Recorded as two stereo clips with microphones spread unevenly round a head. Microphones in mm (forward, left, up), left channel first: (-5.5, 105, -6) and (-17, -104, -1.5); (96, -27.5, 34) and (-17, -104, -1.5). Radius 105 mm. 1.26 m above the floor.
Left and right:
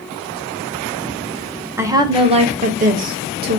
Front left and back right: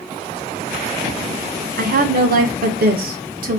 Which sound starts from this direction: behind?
A woman speaking, at 1.8 s.